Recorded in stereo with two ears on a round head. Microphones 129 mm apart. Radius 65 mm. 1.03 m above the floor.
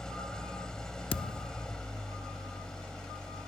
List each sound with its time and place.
0.0 s an engine running: 5° left (ahead or behind)
1.1 s a thud: 35° left (ahead or behind)